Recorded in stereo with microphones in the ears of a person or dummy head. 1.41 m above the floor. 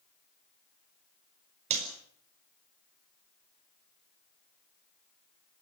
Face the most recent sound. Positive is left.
turn(degrees=-45)  # may be behind; listen again after turning